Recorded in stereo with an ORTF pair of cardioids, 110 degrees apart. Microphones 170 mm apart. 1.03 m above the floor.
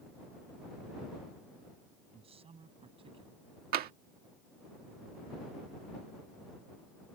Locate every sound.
2.1 s a man speaking: 35° right; by 3.6 s 30° right
3.7 s tapping: 65° right